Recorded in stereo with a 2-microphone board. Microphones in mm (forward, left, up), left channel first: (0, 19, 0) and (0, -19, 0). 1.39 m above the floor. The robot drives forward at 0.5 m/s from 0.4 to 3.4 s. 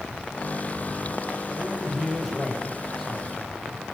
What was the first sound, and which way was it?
A man speaking, 5° right (ahead or behind).